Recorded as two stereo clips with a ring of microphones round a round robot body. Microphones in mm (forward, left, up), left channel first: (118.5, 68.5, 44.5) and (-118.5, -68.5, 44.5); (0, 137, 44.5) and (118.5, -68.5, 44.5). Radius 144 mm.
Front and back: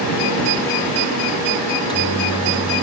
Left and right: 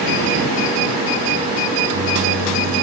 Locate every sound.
1.7 s a microwave: 45° right